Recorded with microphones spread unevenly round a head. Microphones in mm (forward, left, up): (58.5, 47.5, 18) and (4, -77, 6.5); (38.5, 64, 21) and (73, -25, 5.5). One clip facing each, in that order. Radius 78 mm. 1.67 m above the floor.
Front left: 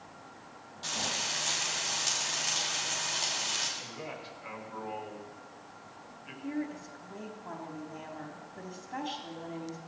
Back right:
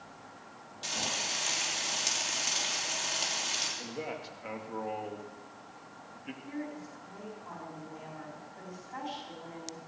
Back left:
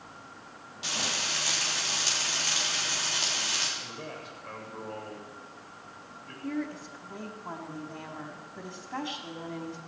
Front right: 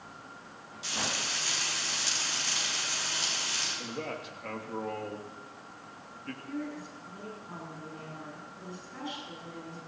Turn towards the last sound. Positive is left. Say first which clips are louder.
# front left 5 dB, back left 5 dB
turn(degrees=115)